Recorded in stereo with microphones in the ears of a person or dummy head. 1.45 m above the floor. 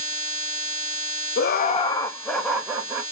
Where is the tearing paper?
I don't hear tearing paper.